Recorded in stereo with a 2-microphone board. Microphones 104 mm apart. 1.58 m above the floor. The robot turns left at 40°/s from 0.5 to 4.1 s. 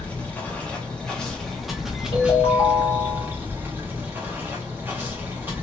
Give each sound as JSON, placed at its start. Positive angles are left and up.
{"t": 0.0, "sound": "running water", "side_deg": 15, "distance_m": 0.7}
{"t": 2.1, "sound": "a ringtone", "azimuth_deg": 85, "distance_m": 1.5}